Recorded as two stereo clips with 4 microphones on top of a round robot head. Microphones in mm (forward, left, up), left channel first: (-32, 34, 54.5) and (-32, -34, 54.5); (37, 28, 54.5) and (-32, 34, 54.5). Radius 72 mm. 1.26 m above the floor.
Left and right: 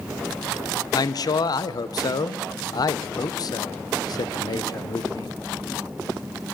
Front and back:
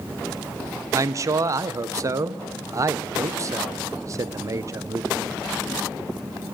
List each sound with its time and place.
0.9 s a man speaking: 125° left, 0.5 m